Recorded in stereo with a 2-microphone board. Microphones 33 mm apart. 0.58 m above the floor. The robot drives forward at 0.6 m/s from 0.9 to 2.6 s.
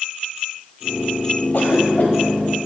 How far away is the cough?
About 3 m.